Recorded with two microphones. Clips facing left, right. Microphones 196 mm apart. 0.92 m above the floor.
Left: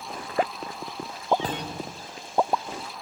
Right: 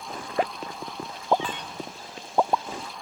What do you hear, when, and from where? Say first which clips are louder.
1.4 s a thud: left 4 dB; 40° left (ahead or behind)